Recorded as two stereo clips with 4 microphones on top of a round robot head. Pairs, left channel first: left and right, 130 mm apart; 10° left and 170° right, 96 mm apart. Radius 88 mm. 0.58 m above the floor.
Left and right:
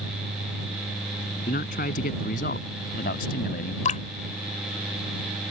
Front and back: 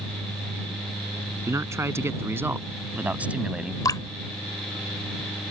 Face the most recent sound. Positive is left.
turn(degrees=60)